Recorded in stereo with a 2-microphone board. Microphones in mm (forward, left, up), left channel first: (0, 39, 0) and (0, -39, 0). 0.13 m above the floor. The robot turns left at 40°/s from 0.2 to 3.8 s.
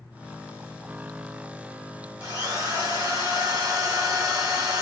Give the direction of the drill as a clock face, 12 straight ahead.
2 o'clock.